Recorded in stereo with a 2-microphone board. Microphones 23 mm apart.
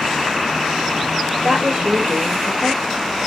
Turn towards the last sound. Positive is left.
turn(degrees=-45)  # may be behind; listen again after turning